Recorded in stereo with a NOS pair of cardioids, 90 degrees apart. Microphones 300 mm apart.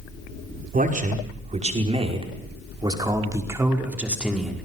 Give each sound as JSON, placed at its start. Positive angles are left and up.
{"t": 0.7, "sound": "a man speaking", "azimuth_deg": -25, "distance_m": 5.5}